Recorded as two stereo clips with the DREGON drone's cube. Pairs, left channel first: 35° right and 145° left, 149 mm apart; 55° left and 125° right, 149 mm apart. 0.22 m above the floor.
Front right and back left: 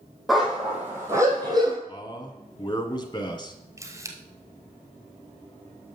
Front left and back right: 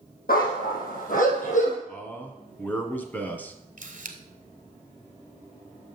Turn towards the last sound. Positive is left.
turn(degrees=-145)